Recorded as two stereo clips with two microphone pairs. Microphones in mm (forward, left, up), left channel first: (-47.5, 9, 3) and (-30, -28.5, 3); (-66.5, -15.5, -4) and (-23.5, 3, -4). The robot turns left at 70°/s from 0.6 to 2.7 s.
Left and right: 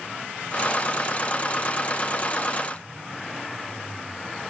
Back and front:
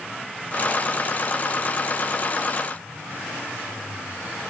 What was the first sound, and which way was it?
Only background noise.